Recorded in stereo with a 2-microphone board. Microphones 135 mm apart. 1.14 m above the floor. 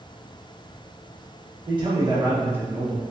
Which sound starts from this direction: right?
A man speaking, at 1.7 s.